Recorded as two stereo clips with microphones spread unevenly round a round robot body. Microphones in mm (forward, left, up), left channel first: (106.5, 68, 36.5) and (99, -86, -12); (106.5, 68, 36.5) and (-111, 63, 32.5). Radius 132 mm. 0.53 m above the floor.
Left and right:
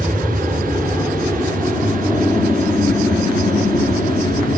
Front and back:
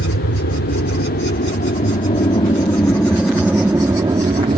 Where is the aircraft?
Straight ahead; by 4.6 s 160° left.